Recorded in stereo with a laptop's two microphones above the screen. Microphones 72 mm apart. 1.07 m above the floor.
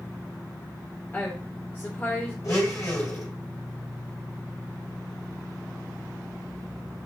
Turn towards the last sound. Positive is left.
turn(degrees=50)  # may be behind; listen again after turning